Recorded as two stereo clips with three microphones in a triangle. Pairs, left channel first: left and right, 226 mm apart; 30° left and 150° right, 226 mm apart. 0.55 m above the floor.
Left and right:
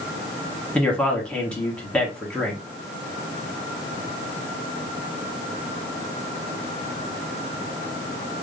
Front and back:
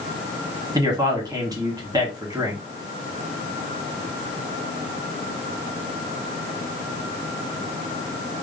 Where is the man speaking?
170° left, 1.3 m.